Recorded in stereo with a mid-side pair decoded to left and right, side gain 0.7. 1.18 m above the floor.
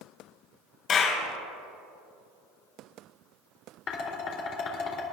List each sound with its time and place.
0.9 s a clap: 40° left, 4.5 m
3.9 s dishes clattering: 50° left, 3 m